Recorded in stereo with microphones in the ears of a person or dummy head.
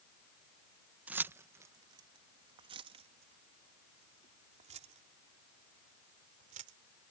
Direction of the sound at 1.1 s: 10° right (ahead or behind).